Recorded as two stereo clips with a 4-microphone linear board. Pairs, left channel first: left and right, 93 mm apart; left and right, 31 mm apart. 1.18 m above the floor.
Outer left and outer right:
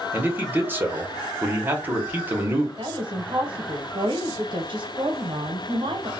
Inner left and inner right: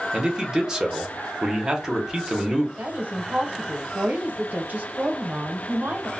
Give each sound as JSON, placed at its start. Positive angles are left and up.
{"t": 0.1, "sound": "a man speaking", "side_deg": -20, "distance_m": 0.8}
{"t": 2.8, "sound": "a woman speaking", "side_deg": -60, "distance_m": 0.9}